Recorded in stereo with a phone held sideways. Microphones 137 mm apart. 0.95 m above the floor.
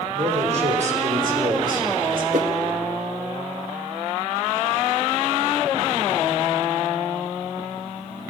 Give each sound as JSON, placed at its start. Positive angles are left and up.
{"t": 0.1, "sound": "a man speaking", "side_deg": -50, "distance_m": 3.0}
{"t": 2.3, "sound": "a whoosh", "side_deg": -70, "distance_m": 0.9}